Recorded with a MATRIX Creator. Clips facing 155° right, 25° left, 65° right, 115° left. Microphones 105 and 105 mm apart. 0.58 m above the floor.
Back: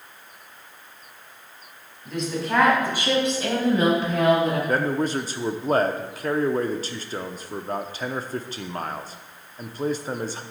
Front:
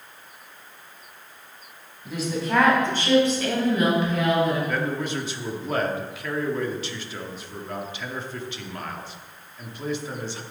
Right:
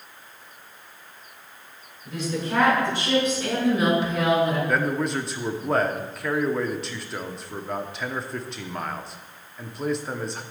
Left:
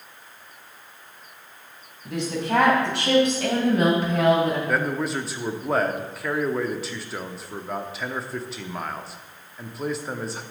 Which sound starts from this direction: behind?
A man speaking, at 4.7 s.